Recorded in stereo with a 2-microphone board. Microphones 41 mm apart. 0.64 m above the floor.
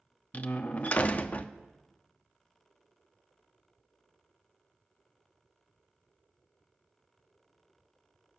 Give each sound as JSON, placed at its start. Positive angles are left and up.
{"t": 0.3, "sound": "a door slam", "side_deg": 35, "distance_m": 0.6}